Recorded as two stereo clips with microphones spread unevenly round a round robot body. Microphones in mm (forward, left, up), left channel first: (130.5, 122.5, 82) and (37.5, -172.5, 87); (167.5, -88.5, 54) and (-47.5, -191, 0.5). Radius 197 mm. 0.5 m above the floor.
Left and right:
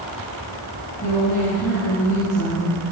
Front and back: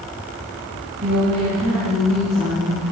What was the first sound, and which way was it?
A woman speaking, 145° left.